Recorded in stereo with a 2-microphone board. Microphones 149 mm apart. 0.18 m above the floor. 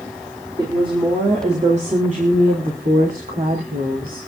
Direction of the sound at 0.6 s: 30° right (ahead or behind).